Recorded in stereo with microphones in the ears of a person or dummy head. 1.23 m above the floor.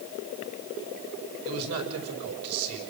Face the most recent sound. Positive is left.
turn(degrees=-75)  # may be behind; listen again after turning